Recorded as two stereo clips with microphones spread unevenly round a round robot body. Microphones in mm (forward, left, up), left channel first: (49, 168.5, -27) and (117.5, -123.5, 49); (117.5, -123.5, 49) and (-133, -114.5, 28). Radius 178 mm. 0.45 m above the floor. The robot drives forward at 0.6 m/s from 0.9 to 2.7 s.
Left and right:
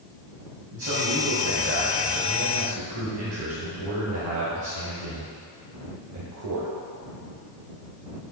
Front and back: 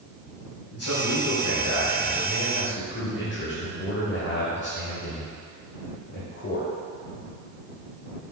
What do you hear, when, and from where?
0.7 s a man speaking: 25° right, 2.5 m; by 6.7 s 45° right, 1.9 m